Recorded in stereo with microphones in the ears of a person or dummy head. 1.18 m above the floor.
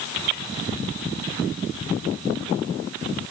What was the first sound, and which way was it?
Only background noise.